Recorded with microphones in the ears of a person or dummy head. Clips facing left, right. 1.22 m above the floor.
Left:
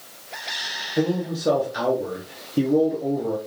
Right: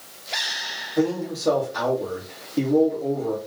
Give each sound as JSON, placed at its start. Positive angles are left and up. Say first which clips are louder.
{"t": 1.0, "sound": "a man speaking", "louder": "even", "side_deg": 10, "distance_m": 0.8}